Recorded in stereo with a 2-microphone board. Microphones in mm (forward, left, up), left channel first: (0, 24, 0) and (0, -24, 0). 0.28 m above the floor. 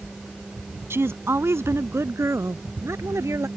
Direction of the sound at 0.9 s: 60° right (ahead or behind).